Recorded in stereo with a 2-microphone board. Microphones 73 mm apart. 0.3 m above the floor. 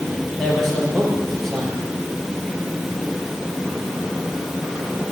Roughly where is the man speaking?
Centre.